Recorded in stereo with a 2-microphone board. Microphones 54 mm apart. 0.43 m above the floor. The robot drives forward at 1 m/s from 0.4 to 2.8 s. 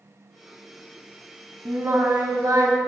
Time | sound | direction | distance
1.6 | singing | 45° right (ahead or behind) | 1.3 m